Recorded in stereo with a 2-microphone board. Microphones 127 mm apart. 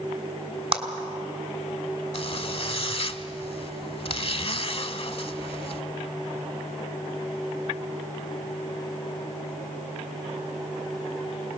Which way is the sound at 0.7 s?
50° right (ahead or behind).